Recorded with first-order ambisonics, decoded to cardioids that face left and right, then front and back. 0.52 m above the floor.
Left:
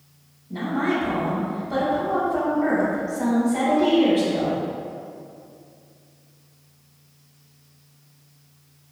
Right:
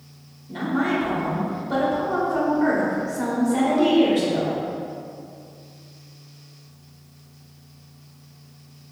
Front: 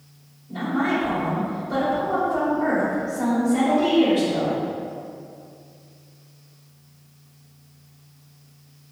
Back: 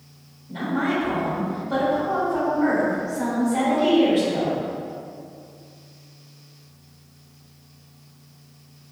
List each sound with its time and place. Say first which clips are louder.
0.5 s a woman speaking: even, front 1 dB; 100° right, 1.4 m